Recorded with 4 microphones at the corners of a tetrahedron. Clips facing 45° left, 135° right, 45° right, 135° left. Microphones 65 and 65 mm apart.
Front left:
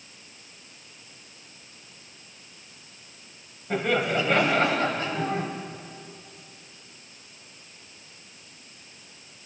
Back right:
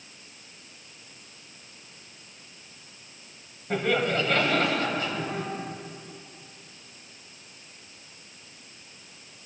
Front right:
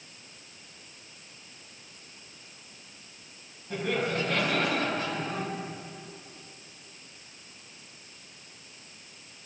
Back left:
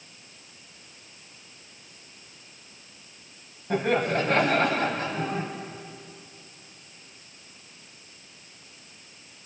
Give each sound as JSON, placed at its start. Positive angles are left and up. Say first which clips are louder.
{"t": 3.7, "sound": "laughter", "louder": "front left 1 dB, back left 5 dB", "azimuth_deg": 130, "distance_m": 2.5}